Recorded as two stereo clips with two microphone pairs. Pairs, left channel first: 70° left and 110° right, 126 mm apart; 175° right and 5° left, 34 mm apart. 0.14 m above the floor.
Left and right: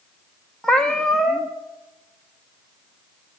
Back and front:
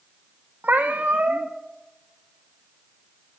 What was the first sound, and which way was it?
A cat meowing, 20° right.